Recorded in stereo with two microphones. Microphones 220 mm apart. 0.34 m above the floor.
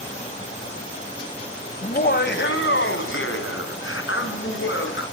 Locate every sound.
1.8 s laughter: 40° left (ahead or behind), 1.5 m; by 5.0 s 65° left (ahead or behind), 4 m